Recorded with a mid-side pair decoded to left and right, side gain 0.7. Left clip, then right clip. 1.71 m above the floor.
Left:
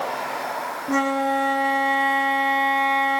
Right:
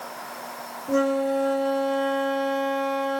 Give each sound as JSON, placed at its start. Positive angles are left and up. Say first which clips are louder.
{"t": 0.9, "sound": "a flute", "louder": "left 1 dB", "azimuth_deg": 45, "distance_m": 1.3}